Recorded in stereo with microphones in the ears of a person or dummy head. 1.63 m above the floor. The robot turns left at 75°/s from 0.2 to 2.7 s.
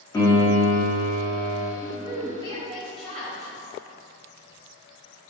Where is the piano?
155° left, 0.8 m; by 1.7 s 40° left, 0.8 m.